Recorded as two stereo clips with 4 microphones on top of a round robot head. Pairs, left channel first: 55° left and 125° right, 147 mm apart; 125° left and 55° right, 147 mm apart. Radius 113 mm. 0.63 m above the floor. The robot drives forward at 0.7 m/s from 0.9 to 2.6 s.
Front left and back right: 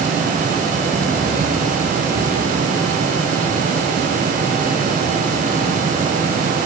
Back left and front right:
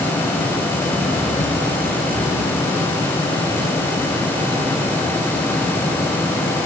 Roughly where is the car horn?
I don't hear a car horn.